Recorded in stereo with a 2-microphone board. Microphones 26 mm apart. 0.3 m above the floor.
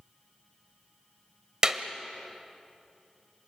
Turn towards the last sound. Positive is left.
turn(degrees=-25)  # may be behind; listen again after turning